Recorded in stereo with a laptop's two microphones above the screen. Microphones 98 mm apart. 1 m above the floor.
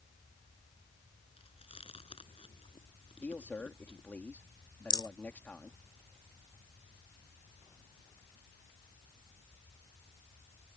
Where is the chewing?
75° left (ahead or behind).